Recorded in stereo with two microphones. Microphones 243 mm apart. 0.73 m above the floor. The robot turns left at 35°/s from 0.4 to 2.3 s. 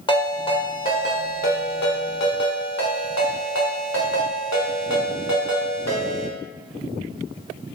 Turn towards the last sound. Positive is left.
turn(degrees=95)